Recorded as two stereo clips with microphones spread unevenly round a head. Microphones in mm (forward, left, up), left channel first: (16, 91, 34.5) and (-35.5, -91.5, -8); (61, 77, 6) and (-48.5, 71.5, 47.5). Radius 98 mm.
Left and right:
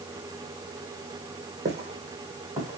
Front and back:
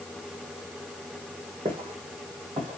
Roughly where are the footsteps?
Behind.